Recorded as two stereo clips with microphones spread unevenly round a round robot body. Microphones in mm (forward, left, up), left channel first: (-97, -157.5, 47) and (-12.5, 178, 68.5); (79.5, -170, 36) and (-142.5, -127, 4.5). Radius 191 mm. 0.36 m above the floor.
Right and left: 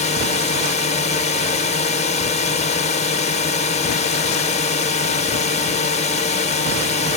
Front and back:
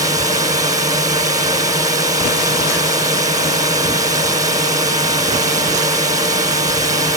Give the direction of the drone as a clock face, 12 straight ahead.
5 o'clock.